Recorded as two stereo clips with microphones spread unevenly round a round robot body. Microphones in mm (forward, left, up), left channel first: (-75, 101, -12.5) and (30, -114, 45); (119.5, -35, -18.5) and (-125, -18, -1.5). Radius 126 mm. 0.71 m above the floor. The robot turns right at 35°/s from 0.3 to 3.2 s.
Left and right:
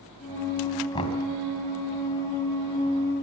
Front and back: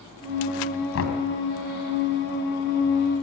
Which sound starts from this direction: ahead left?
Knocking, at 0.9 s.